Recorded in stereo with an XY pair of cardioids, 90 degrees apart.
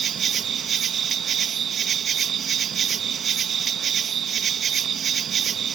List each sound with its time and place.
0.0 s an insect: 65° right